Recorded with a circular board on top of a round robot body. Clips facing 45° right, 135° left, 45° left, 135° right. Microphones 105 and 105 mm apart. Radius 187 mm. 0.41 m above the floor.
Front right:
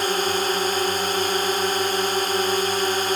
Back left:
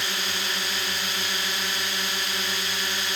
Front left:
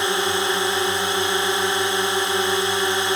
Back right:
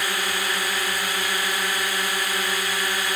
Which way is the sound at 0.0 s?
15° right.